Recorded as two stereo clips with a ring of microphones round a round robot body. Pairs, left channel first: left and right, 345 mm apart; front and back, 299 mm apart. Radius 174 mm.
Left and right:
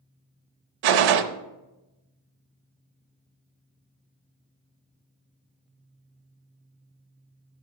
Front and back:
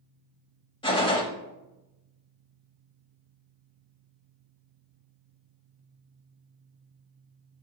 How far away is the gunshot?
About 0.7 m.